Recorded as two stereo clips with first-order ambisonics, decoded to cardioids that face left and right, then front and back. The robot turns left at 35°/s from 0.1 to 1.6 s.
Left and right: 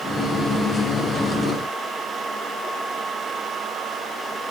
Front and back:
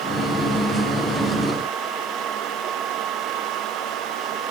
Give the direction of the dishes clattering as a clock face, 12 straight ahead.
I don't hear dishes clattering.